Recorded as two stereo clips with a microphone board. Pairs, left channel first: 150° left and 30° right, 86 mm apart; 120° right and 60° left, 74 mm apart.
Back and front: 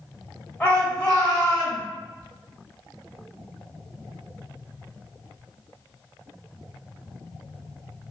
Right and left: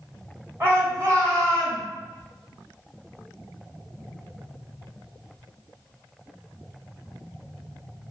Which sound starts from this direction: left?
A shout, at 0.6 s.